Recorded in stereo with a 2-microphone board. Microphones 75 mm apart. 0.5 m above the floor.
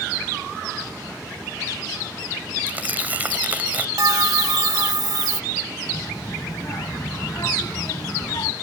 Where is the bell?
65° right (ahead or behind).